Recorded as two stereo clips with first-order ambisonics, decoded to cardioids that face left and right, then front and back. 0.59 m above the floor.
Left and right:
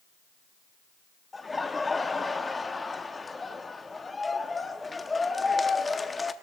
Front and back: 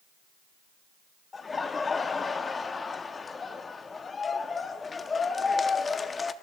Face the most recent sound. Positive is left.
turn(degrees=35)